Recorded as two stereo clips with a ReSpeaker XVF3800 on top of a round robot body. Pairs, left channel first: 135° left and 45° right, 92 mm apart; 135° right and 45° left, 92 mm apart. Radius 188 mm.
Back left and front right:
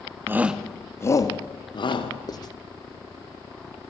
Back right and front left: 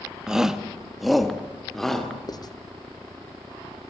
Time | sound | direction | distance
0.3 | a shout | 30° right | 1.5 m
2.3 | writing | straight behind | 1.1 m